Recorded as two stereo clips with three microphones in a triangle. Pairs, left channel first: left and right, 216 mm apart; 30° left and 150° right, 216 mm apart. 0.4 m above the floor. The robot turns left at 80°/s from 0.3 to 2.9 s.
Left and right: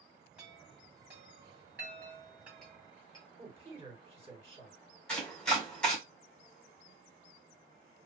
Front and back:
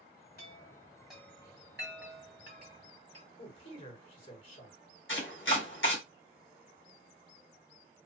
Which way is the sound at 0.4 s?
5° right.